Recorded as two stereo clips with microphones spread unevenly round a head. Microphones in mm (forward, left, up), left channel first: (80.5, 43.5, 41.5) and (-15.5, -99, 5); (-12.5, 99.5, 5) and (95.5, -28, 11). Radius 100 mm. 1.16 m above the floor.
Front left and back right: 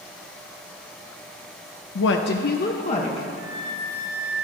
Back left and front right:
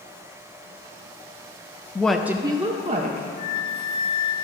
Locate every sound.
1.9 s a woman speaking: 50° left, 0.5 m; by 3.3 s straight ahead, 1.0 m
3.4 s a flute: 70° left, 2.5 m